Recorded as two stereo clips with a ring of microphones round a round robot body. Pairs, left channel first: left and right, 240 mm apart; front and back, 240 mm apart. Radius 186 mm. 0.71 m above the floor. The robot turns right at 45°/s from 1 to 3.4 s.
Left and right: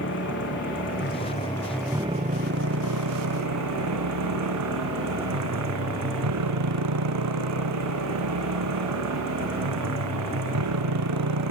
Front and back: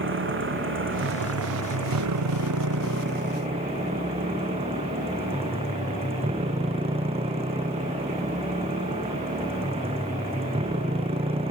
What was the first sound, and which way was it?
A motorcycle, 145° left.